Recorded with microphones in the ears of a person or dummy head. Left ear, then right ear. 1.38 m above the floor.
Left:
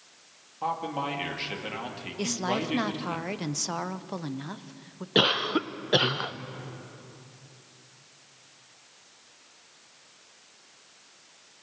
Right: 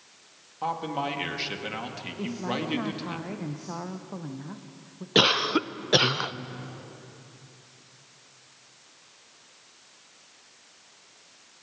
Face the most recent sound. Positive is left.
turn(degrees=-10)  # may be behind; listen again after turning